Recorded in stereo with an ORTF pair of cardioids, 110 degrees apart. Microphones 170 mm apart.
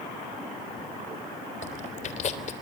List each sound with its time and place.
1.6 s chewing: 45° left, 3.5 m